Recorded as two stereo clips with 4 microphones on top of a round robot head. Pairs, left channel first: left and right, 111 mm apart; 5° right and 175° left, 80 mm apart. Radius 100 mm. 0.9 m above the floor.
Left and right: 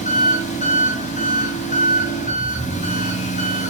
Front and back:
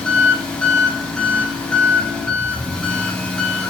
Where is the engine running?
70° left, 5 m.